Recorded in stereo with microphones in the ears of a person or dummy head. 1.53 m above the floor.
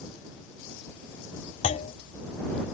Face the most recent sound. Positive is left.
turn(degrees=45)  # may be behind; listen again after turning